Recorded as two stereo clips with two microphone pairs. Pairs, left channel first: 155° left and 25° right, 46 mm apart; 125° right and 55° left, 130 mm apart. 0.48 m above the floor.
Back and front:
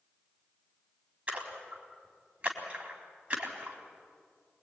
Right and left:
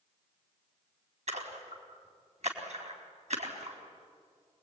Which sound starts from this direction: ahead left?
A splash, at 1.3 s.